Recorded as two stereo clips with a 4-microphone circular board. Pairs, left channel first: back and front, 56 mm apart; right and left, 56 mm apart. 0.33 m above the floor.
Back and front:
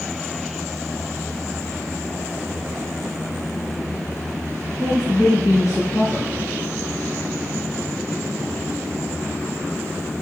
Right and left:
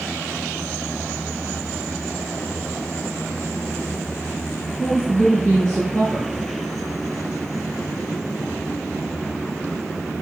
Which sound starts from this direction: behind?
A woman speaking, at 4.8 s.